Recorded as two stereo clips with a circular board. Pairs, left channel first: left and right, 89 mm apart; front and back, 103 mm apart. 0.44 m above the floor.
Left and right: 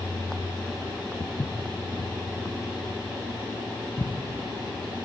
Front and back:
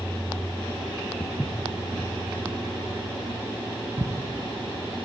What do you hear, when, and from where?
1.2 s footsteps: 70° left, 1.6 m; by 5.1 s 150° left, 3.5 m